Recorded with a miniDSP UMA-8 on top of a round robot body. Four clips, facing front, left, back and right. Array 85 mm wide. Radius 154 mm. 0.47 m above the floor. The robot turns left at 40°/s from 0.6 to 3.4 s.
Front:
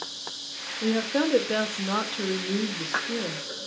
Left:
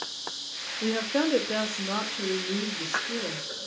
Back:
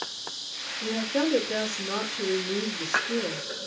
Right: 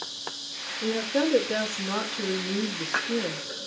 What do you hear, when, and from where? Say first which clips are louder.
0.8 s a woman speaking: right 1 dB, front 2 dB; 50° left, 0.9 m; by 3.4 s 55° right, 0.9 m